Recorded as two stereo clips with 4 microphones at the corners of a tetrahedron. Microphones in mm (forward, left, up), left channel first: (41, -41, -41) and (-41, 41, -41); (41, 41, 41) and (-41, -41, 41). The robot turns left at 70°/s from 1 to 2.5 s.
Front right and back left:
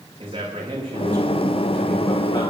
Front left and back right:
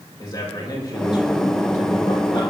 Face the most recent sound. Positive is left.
turn(degrees=-10)